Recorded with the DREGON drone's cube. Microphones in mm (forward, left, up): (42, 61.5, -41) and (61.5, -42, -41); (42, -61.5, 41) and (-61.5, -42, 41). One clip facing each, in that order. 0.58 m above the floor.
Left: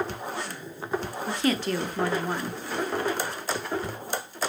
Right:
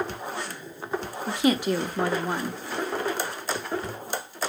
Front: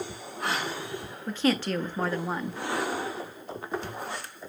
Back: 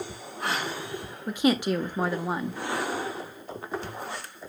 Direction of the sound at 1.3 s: 135° right.